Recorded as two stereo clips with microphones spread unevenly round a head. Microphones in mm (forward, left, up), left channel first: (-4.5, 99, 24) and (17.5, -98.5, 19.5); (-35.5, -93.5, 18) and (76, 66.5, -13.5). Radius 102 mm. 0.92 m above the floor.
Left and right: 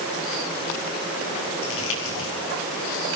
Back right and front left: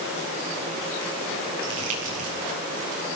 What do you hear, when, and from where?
1.6 s crumpling: 80° left, 7.5 m